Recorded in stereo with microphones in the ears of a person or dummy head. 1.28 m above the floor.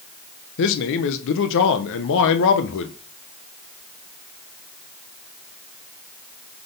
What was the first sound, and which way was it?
A man speaking, 75° left (ahead or behind).